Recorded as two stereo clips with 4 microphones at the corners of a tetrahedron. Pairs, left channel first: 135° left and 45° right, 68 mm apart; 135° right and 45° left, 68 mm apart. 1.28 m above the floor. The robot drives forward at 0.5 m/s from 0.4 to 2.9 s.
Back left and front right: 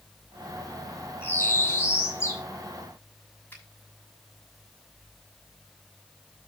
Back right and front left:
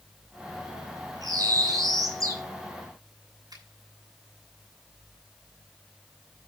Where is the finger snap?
70° left, 6.5 m.